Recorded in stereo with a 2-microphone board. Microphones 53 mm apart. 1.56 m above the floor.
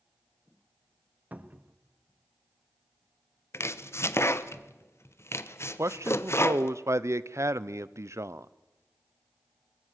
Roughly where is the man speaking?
Right.